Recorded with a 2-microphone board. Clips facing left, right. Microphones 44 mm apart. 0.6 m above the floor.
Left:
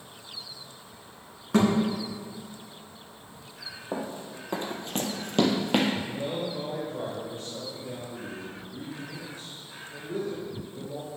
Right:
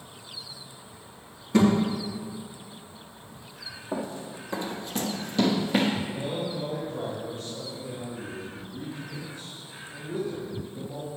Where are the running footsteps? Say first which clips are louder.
Right 1 dB; 20° left (ahead or behind), 1.4 m; by 5.9 s 65° left (ahead or behind), 1.3 m.